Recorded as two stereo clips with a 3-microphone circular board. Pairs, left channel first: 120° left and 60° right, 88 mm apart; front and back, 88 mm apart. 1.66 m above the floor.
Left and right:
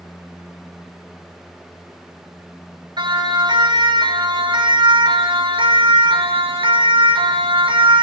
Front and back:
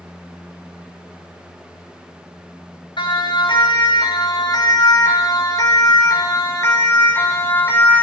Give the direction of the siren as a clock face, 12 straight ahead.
1 o'clock.